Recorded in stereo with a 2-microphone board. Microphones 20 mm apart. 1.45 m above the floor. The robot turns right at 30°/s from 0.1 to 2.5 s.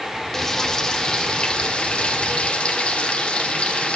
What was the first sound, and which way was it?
Frying, 15° left.